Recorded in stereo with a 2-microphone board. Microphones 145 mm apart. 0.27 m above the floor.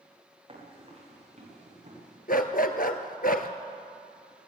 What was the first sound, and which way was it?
Running footsteps, 35° right (ahead or behind).